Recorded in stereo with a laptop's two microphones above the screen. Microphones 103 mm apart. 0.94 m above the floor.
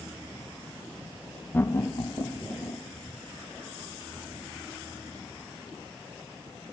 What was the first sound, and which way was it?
Laughter, 20° left (ahead or behind).